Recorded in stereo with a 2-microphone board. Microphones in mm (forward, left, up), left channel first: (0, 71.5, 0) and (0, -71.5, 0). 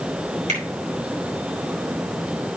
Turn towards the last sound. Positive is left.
turn(degrees=-55)  # may be behind; listen again after turning